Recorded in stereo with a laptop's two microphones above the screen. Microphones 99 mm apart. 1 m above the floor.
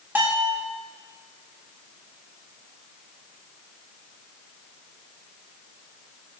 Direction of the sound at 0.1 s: 20° right (ahead or behind).